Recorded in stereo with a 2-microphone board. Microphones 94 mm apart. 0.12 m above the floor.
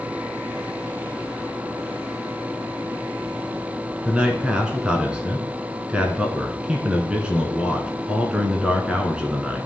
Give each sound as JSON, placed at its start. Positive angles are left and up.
{"t": 4.0, "sound": "a man speaking", "side_deg": -10, "distance_m": 1.1}